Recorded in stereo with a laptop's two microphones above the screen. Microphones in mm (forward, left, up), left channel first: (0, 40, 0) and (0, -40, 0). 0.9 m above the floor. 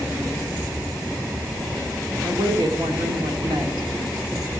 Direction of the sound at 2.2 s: 80° right.